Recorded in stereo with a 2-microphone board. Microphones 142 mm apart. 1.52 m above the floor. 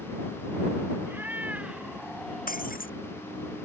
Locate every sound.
1.1 s a cat meowing: 15° right (ahead or behind); by 2.8 s 5° left (ahead or behind)
2.5 s breaking glass: 80° left